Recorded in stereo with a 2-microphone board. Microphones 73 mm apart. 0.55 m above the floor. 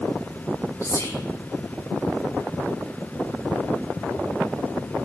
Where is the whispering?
40° left (ahead or behind), 0.8 m.